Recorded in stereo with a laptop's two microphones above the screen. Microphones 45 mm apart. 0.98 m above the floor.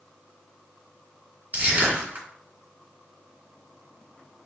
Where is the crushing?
30° right (ahead or behind), 2 m.